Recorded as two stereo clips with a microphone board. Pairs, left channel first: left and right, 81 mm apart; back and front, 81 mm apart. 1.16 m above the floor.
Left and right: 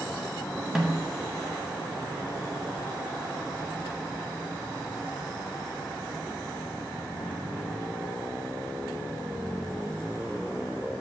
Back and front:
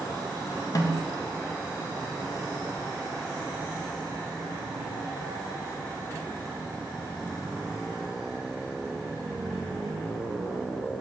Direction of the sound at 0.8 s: 175° right.